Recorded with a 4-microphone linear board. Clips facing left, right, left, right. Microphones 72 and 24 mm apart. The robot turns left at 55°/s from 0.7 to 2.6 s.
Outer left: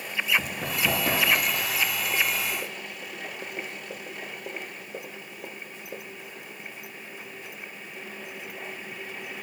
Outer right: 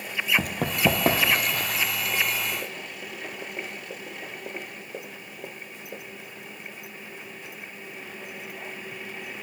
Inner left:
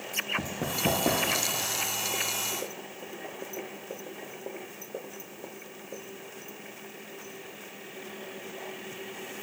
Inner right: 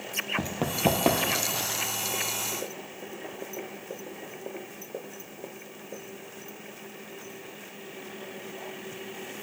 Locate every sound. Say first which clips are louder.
0.4 s running footsteps: outer right 5 dB, inner right 3 dB; 65° right (ahead or behind), 0.9 m; by 1.8 s 55° right (ahead or behind), 1.2 m